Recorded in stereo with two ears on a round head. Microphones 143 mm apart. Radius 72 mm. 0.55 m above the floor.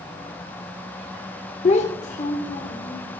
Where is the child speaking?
45° left (ahead or behind), 0.6 m; by 3.0 s 55° left (ahead or behind), 1.4 m.